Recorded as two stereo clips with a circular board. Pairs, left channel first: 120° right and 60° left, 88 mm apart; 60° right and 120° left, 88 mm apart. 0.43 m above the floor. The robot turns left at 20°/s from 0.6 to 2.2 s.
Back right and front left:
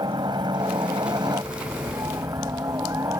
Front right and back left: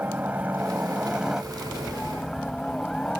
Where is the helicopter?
55° left; by 3.2 s 20° left.